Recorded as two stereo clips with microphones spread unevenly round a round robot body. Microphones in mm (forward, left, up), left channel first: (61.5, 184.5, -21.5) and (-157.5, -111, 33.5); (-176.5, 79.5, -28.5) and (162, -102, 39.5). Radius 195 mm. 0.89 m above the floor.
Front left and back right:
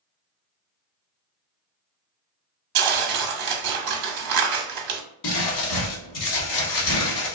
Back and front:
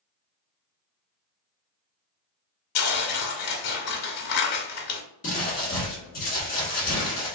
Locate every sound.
2.8 s tearing paper: 155° right, 0.8 m
5.2 s crumpling: 85° left, 1.4 m